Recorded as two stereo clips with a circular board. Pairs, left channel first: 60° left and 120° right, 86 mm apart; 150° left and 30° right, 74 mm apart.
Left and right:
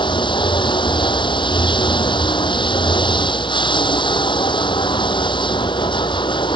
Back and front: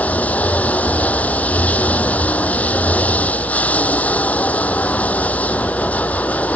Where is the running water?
80° left.